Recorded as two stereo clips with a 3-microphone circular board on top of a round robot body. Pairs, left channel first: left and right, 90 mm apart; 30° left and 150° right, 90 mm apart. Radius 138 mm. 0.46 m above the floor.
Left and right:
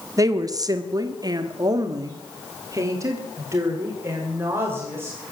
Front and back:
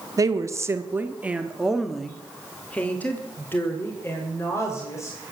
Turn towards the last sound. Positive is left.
turn(degrees=-25)